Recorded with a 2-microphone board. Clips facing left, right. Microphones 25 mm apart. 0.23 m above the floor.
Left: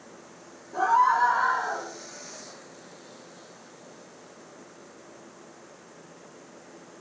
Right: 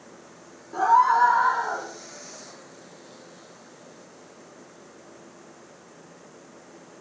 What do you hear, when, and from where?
0.7 s a scream: 60° right (ahead or behind), 8.5 m; by 1.9 s 65° right (ahead or behind), 9.5 m